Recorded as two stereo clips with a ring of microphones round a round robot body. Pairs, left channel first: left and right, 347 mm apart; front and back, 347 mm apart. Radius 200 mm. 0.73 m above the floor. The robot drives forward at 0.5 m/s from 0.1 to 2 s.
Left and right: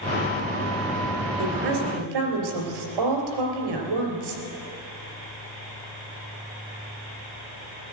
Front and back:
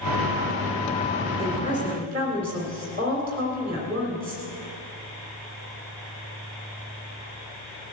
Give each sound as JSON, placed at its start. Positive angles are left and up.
{"t": 1.4, "sound": "a woman speaking", "azimuth_deg": -105, "distance_m": 3.5}